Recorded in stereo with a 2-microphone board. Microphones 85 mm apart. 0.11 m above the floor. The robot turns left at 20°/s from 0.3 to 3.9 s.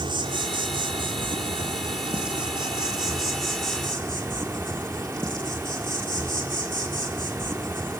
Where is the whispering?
I don't hear whispering.